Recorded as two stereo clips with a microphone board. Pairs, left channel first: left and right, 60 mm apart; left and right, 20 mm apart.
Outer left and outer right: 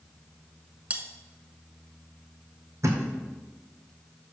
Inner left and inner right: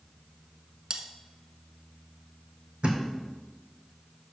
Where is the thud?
60° right (ahead or behind), 1.7 m.